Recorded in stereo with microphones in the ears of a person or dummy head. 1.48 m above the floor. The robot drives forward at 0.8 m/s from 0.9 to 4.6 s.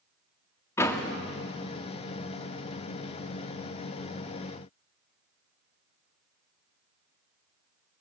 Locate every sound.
0.8 s a door slam: 15° left (ahead or behind), 1.6 m